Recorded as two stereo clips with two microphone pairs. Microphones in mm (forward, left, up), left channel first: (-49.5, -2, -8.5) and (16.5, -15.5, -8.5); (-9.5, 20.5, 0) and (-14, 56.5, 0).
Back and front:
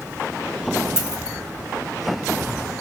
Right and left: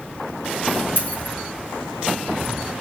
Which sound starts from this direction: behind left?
A dropped coin, at 1.0 s.